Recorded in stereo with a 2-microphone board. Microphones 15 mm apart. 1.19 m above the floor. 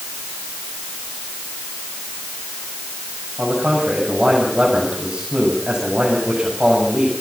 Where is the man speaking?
75° right (ahead or behind), 8 m.